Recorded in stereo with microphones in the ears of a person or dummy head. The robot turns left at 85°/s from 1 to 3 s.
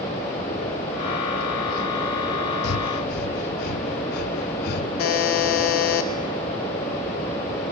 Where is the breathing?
70° left (ahead or behind), 0.6 m; by 4.9 s 50° left (ahead or behind), 0.6 m.